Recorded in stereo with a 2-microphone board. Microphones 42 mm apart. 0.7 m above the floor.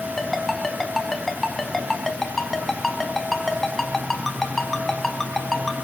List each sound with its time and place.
0.2 s a ringtone: 5° left (ahead or behind), 3 m